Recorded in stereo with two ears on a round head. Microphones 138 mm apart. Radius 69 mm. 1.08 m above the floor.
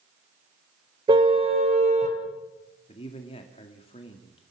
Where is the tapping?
I don't hear tapping.